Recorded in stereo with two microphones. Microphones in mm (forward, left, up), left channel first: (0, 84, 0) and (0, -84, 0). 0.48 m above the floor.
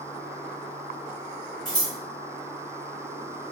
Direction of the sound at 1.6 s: 45° left (ahead or behind).